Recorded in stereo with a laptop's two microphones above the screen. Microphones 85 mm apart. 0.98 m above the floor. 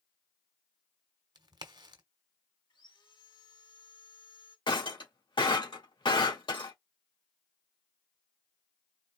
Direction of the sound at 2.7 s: 65° left (ahead or behind).